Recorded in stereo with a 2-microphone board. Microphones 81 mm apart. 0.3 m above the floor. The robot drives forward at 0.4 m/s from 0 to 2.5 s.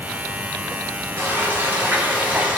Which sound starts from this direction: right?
Frying, at 1.2 s.